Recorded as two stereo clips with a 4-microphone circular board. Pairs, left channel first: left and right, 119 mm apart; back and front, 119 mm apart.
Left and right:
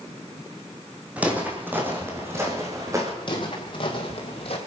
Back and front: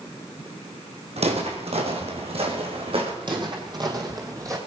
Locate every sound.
1.2 s footsteps: 15° right, 3 m; by 3.1 s 30° right, 3.5 m
3.2 s footsteps: 45° left, 3 m; by 4.6 s 60° left, 3 m